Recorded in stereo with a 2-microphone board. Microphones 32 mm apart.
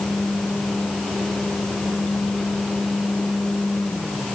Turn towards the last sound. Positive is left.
No sound to turn to.